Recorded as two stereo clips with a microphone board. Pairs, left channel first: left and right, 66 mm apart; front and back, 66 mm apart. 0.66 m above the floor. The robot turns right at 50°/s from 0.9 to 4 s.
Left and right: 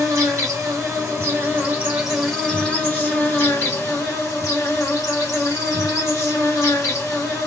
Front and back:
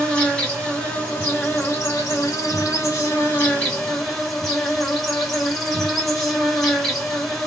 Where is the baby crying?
I don't hear a baby crying.